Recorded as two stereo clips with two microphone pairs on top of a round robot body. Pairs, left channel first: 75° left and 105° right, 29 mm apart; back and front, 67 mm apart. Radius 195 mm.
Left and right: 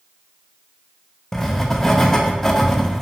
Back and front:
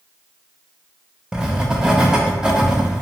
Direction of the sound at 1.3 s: 65° left.